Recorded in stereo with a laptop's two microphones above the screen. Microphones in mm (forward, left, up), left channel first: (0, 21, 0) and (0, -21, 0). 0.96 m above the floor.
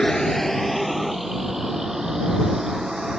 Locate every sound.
0.0 s a vehicle: 20° left (ahead or behind); by 3.2 s 10° right (ahead or behind)